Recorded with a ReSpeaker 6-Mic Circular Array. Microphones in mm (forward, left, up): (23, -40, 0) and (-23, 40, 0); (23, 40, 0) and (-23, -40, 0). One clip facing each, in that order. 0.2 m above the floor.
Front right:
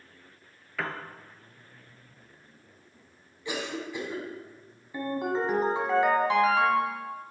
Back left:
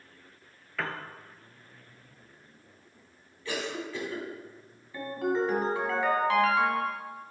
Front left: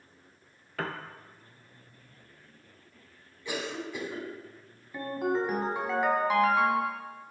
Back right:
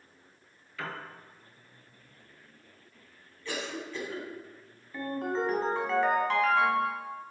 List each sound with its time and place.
0.8 s a piano: 30° left, 0.6 m
3.5 s a cough: 5° right, 1.5 m
4.9 s a ringtone: 10° right, 1.1 m